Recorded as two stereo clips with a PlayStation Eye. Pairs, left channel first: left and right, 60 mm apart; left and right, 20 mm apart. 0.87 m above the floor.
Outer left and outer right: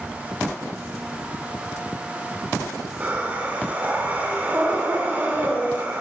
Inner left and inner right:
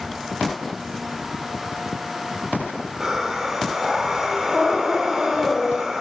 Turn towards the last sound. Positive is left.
turn(degrees=-30)  # may be behind; listen again after turning